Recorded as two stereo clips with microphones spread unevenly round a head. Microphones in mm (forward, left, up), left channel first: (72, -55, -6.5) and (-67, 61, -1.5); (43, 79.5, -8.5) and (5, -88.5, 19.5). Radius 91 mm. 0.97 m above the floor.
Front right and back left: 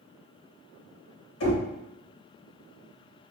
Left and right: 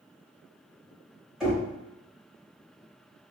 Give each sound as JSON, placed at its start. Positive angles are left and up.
{"t": 1.4, "sound": "knocking", "azimuth_deg": -15, "distance_m": 1.1}